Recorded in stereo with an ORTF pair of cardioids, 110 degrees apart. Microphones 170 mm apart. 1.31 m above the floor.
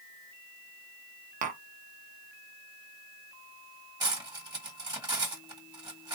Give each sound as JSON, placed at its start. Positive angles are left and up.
{"t": 1.4, "sound": "tapping", "azimuth_deg": -55, "distance_m": 0.9}
{"t": 4.0, "sound": "cutlery clinking", "azimuth_deg": -25, "distance_m": 1.5}